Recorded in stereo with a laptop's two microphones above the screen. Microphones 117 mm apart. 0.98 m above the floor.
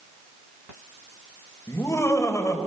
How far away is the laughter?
About 4.5 m.